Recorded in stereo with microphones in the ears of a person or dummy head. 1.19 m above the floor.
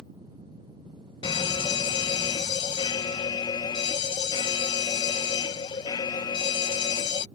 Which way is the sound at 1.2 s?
15° left (ahead or behind).